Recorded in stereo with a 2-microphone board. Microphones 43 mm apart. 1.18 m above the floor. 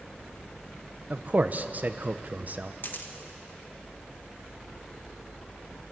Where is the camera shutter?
55° left (ahead or behind), 1.5 m.